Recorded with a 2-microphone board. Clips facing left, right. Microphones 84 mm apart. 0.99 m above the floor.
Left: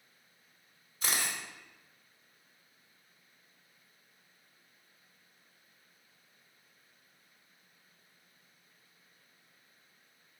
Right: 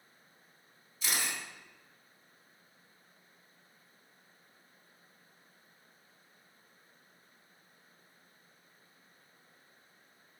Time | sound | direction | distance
1.0 | a camera shutter | 50° left (ahead or behind) | 3.5 m